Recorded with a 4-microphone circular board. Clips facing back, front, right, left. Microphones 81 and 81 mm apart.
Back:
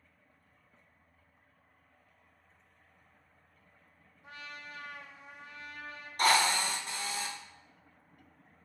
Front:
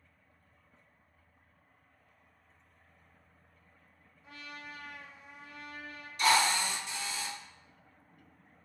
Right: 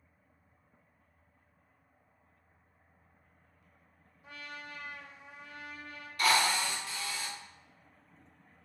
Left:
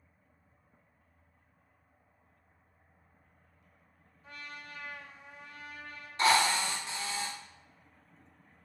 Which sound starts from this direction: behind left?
A drill, at 6.2 s.